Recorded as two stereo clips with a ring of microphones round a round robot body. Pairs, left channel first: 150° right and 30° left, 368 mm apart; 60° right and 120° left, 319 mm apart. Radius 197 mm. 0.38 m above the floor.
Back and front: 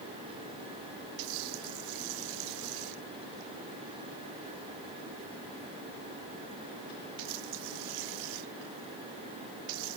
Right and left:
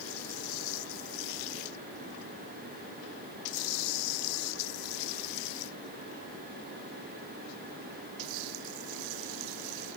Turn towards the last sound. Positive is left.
No sound to turn to.